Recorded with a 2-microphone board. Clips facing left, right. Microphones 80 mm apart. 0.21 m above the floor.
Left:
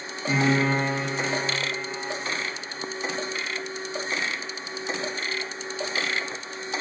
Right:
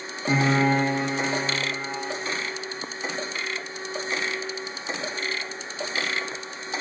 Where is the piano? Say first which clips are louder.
Right 1 dB; 25° right (ahead or behind), 6.5 m.